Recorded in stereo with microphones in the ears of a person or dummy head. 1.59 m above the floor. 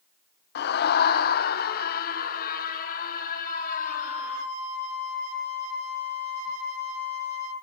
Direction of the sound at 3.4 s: 60° right (ahead or behind).